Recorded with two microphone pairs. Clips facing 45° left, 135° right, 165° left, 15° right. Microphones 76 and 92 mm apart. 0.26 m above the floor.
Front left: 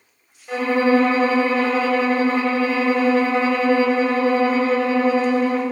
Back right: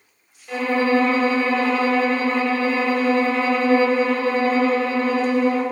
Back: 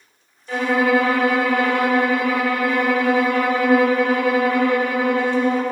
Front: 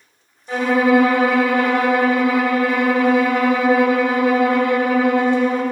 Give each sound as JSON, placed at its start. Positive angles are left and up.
{"t": 0.5, "sound": "a violin", "azimuth_deg": 5, "distance_m": 1.0}